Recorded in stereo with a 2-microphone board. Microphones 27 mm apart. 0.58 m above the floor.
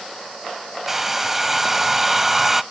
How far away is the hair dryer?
About 0.6 m.